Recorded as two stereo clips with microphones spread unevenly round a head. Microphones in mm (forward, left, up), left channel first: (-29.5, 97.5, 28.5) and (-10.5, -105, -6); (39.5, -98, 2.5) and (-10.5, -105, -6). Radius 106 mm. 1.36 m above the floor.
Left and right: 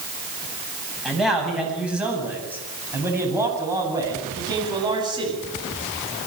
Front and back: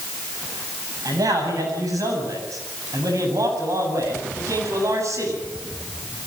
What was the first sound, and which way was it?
A man speaking, 175° right.